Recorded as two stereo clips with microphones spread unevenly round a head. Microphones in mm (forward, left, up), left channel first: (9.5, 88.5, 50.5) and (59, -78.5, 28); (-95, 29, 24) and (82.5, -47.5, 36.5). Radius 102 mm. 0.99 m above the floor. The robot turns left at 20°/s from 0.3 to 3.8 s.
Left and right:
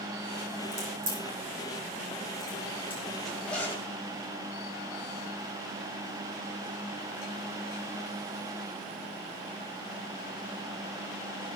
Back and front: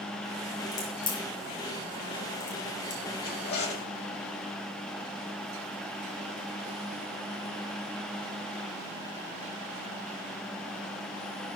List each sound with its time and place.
0.7 s a crack: 130° right, 8 m; by 3.0 s 175° right, 8 m
3.2 s a zipper: 160° right, 2 m; by 3.9 s 170° right, 2 m